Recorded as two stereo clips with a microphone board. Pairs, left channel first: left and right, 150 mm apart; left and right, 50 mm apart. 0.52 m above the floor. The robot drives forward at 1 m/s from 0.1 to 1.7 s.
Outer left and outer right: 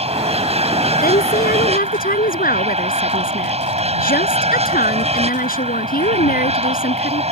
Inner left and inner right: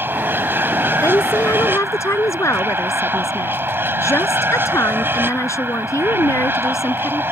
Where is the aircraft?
45° right (ahead or behind).